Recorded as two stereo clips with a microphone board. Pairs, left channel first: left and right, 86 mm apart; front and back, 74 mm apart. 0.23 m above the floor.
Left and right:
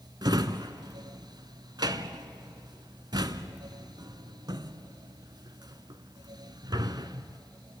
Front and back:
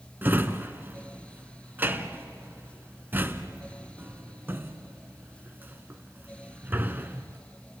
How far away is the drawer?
About 1.0 m.